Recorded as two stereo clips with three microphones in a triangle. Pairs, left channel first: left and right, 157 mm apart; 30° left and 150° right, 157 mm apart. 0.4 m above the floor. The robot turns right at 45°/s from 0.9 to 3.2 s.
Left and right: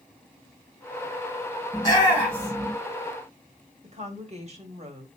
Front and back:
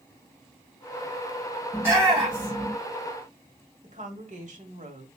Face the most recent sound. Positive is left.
turn(degrees=-125)